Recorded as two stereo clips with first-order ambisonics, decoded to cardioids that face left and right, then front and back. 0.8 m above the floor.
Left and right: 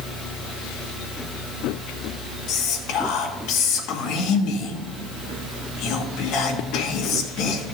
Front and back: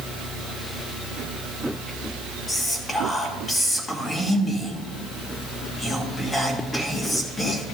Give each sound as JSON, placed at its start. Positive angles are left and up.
{"t": 2.5, "sound": "whispering", "azimuth_deg": 70, "distance_m": 1.8}